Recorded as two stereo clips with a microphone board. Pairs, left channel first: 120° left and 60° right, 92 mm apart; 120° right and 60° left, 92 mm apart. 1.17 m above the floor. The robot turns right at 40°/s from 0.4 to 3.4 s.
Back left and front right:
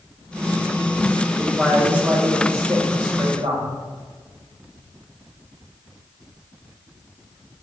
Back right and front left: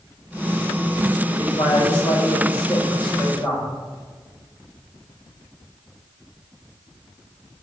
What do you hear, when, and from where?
1.3 s a man speaking: 155° right, 1.5 m; by 3.7 s 75° right, 1.5 m